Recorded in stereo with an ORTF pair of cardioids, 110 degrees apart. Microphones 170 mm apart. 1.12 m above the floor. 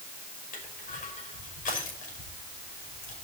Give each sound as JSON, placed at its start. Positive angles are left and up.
{"t": 0.5, "sound": "crushing", "azimuth_deg": 50, "distance_m": 5.5}